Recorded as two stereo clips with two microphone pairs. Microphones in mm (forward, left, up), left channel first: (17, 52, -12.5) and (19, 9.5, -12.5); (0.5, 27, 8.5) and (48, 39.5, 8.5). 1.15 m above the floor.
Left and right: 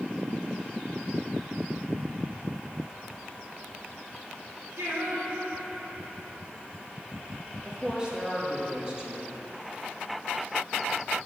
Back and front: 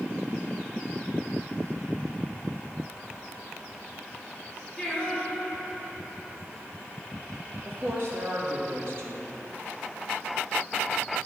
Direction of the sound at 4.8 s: 75° right.